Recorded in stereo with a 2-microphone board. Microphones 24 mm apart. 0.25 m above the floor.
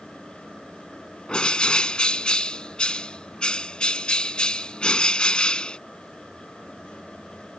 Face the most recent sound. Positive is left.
turn(degrees=40)  # may be behind; listen again after turning